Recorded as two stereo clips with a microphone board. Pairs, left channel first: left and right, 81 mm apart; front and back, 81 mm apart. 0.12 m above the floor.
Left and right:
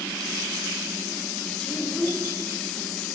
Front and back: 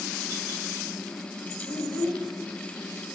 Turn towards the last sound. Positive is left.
turn(degrees=-5)